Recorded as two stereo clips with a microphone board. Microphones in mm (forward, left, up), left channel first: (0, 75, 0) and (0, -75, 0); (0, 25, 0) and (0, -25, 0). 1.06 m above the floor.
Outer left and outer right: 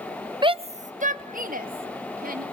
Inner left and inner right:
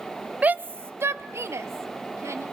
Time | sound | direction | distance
0.4 | a shout | 30° right (ahead or behind) | 0.9 m